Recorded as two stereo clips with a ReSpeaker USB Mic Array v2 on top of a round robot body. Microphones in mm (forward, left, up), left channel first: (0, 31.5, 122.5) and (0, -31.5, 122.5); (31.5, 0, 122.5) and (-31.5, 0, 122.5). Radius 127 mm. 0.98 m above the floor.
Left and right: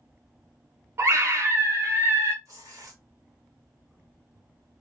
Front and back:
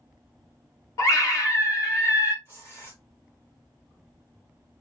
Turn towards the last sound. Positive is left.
turn(degrees=-55)